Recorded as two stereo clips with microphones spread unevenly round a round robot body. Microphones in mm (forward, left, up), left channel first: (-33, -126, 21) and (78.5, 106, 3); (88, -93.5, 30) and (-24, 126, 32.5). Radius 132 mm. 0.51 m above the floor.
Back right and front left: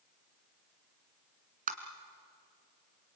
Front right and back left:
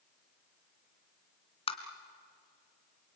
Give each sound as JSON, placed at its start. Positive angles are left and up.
{"t": 1.7, "sound": "tapping", "azimuth_deg": 5, "distance_m": 2.5}